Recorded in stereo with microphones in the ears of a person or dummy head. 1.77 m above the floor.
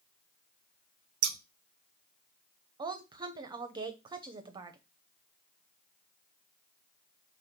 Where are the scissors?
70° right (ahead or behind), 0.5 m.